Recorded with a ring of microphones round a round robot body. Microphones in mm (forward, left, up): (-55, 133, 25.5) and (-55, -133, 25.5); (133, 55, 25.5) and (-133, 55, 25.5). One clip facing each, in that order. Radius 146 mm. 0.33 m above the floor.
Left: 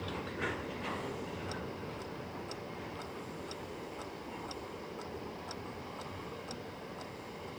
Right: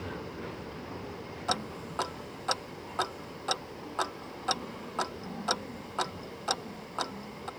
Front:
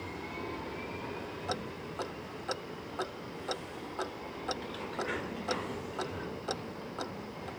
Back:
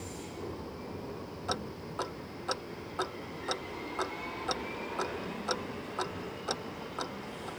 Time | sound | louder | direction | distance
1.5 | ticking | right 4 dB, back 3 dB | 95° right | ?